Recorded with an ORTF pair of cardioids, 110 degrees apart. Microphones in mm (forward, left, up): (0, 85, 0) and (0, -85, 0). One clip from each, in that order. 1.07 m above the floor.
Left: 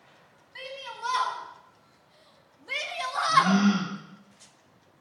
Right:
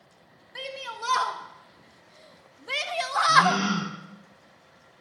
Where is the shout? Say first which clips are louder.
Right 3 dB; 40° right, 4 m; by 3.6 s 25° right, 0.8 m.